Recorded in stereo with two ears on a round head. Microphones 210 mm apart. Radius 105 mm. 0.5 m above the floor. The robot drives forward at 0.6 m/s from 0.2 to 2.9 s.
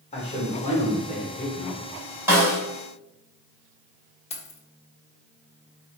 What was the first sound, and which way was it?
A man speaking, 25° left (ahead or behind).